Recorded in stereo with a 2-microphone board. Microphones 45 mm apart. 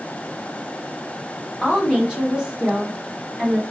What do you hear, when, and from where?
1.6 s a woman speaking: 10° right (ahead or behind), 1.2 m; by 3.6 s 25° right (ahead or behind), 1.2 m